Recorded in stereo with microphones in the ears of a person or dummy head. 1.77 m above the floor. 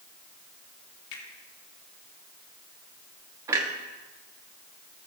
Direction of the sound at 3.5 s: 20° right (ahead or behind).